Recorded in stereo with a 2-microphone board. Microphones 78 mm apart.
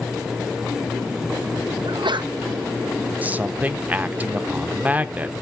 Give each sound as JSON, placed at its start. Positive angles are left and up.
{"t": 1.9, "sound": "a sneeze", "side_deg": -75, "distance_m": 0.8}
{"t": 3.2, "sound": "a man speaking", "side_deg": -20, "distance_m": 0.8}